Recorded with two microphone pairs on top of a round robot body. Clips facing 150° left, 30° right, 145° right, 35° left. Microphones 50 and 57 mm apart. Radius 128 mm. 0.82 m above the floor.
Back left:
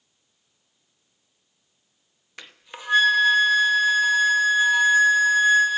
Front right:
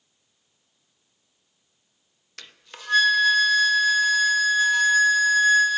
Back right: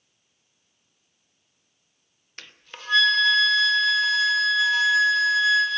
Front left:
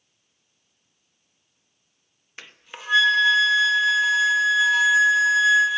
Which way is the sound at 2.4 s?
110° left.